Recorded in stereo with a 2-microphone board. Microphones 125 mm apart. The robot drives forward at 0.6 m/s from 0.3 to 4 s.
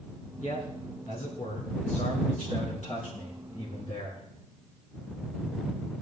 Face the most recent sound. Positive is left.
turn(degrees=60)  # may be behind; listen again after turning